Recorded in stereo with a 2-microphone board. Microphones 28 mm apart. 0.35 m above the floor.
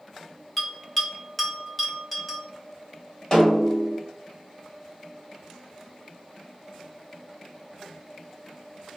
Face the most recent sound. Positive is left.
turn(degrees=30)  # may be behind; listen again after turning